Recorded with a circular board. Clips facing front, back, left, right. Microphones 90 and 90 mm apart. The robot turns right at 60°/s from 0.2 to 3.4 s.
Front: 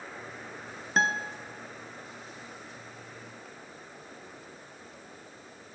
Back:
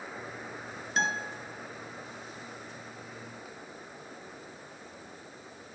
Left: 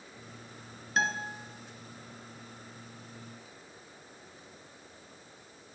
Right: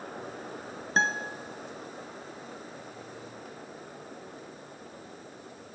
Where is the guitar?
40° right, 0.6 m; by 1.4 s 15° right, 0.6 m.